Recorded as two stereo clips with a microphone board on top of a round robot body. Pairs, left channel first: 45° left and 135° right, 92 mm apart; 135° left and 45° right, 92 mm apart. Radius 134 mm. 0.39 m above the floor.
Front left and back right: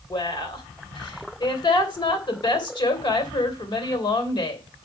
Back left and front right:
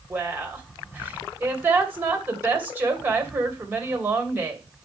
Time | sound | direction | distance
0.1 | a woman speaking | 20° left | 3 m